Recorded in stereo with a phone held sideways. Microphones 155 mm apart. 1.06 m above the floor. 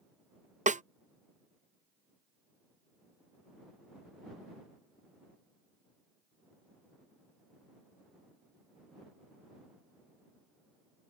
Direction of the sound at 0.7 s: 55° right (ahead or behind).